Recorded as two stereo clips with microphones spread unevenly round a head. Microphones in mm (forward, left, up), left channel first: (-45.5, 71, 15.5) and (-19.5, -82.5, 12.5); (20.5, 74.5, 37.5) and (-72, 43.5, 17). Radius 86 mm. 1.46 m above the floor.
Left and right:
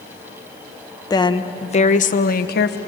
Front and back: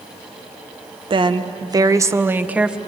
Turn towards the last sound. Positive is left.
turn(degrees=115)